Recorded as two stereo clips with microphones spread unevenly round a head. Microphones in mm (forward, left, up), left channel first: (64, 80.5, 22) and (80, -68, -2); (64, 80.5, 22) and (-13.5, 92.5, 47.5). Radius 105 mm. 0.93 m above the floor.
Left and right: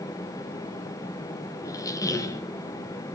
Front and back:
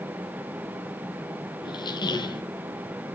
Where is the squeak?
25° left, 0.8 m.